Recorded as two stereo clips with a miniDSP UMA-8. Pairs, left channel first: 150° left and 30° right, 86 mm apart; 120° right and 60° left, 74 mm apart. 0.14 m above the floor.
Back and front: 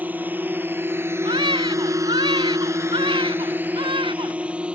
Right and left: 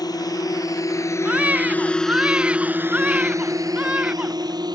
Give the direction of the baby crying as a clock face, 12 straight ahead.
12 o'clock.